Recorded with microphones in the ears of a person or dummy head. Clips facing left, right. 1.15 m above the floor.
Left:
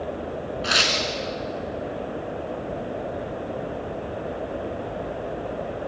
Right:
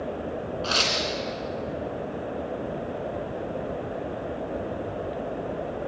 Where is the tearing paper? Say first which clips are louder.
Left 2 dB; 30° left (ahead or behind), 3 m.